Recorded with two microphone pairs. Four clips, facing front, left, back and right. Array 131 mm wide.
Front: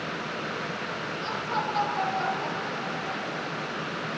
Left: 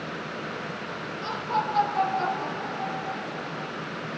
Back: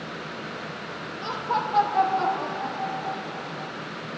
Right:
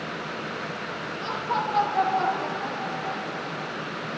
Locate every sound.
1.2 s laughter: 170° right, 8 m; by 3.7 s 165° right, 9 m